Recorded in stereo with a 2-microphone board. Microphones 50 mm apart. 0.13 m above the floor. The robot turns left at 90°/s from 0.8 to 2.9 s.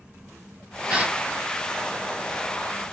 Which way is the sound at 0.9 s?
10° right (ahead or behind).